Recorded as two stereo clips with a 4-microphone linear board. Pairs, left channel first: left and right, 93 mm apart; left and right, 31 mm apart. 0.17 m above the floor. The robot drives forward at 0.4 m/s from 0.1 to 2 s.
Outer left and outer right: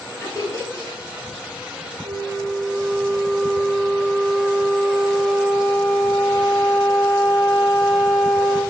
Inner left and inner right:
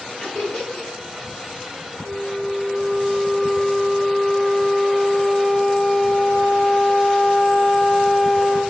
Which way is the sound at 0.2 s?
35° left (ahead or behind).